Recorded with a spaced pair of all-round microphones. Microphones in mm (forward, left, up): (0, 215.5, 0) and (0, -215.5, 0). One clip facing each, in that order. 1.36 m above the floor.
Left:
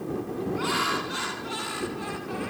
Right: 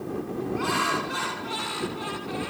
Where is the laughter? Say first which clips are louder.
Right 1 dB; 60° right (ahead or behind); by 2.5 s 80° right.